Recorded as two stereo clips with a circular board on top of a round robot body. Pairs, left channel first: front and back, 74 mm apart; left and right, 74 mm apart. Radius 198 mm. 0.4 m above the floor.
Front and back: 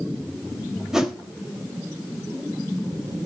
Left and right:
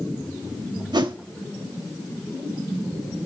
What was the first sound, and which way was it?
A whoosh, 95° right.